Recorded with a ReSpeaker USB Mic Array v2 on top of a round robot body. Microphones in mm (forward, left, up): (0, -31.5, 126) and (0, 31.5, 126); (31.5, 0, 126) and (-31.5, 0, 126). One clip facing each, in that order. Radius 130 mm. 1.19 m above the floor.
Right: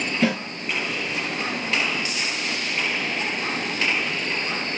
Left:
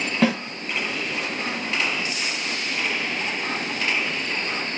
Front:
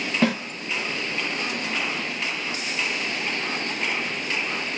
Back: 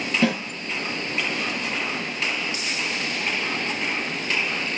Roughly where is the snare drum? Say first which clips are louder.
Left 2 dB, even; ahead left.